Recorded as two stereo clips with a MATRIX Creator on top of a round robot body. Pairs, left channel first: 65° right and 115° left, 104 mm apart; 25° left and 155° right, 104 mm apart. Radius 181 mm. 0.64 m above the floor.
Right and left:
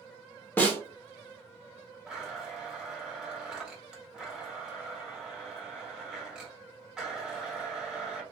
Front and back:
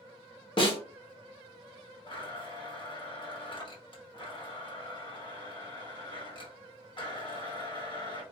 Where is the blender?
35° left, 1.3 m.